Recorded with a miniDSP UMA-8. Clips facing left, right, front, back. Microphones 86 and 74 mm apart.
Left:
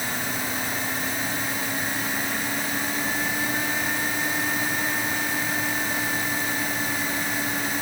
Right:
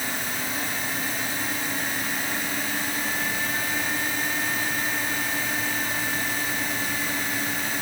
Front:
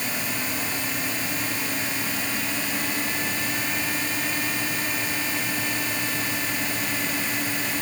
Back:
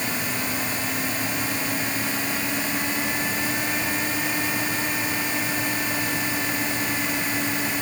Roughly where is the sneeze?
I don't hear a sneeze.